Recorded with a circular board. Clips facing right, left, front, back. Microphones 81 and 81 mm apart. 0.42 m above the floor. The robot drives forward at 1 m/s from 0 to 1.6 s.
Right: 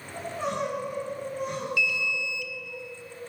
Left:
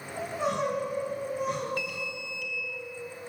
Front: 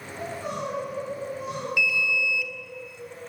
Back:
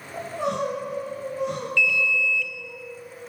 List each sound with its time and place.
0.1 s crying: 175° left, 7 m
1.8 s an alarm: 75° left, 1.6 m